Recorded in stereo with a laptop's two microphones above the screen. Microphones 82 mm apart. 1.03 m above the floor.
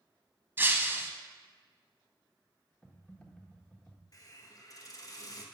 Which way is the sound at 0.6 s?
25° right (ahead or behind).